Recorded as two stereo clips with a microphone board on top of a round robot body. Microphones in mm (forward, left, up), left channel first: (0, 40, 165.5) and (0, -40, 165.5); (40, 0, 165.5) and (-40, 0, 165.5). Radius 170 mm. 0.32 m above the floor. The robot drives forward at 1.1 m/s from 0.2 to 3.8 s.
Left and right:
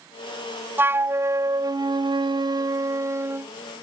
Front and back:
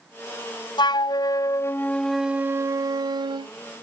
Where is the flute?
25° right; by 3.5 s 155° right.